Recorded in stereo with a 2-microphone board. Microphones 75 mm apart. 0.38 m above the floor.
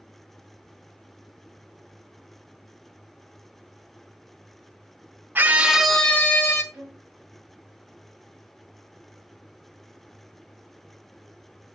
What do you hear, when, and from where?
5.3 s a scream: 25° right (ahead or behind), 1.2 m; by 6.6 s 35° left (ahead or behind), 1.3 m
6.7 s a violin: 20° right (ahead or behind), 3 m